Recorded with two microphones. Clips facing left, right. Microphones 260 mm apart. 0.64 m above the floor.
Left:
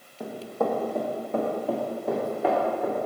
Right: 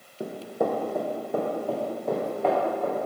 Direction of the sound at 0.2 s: 25° right (ahead or behind).